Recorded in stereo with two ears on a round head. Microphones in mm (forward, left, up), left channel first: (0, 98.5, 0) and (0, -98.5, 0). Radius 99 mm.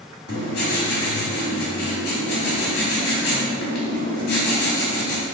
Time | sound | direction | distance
0.3 | writing | 70° left (ahead or behind) | 2 m